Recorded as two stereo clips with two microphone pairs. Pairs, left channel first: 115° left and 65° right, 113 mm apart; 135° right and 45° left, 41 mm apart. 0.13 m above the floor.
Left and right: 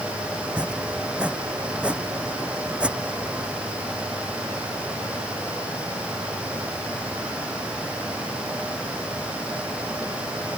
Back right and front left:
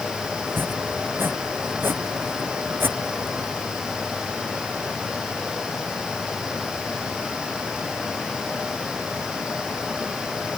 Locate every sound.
0.5 s chopping: 15° left